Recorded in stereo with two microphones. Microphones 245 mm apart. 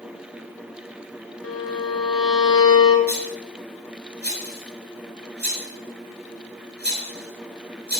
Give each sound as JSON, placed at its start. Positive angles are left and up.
{"t": 1.4, "sound": "a violin", "side_deg": 80, "distance_m": 2.0}
{"t": 3.1, "sound": "a rattle", "side_deg": -45, "distance_m": 6.5}